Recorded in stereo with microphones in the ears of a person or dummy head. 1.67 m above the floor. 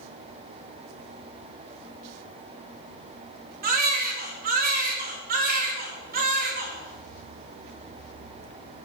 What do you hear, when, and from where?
3.6 s a baby crying: 45° right (ahead or behind), 2.5 m